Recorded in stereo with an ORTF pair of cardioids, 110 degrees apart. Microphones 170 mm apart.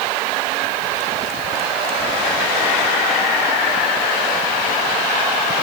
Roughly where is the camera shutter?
I don't hear a camera shutter.